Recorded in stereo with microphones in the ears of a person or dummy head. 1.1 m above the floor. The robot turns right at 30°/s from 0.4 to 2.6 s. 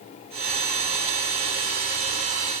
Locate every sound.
Only background noise.